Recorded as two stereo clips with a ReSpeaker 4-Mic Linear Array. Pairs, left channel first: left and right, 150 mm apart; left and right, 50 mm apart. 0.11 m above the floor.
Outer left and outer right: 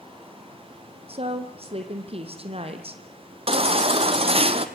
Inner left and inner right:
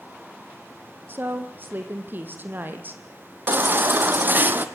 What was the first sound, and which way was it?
A woman speaking, 40° right (ahead or behind).